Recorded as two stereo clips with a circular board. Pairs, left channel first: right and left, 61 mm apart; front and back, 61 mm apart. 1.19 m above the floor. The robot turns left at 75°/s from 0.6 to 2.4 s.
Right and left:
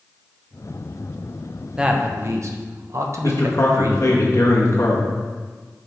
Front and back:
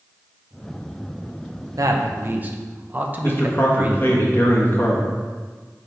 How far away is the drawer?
I don't hear a drawer.